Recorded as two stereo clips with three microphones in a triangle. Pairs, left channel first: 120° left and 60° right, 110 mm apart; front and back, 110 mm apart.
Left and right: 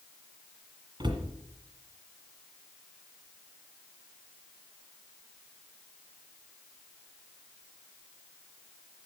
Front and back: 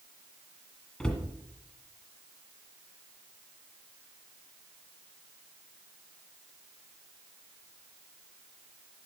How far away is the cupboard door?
About 1.6 m.